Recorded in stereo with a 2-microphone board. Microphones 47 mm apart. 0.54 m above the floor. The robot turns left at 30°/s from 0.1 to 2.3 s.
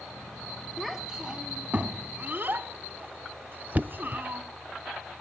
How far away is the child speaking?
About 2 m.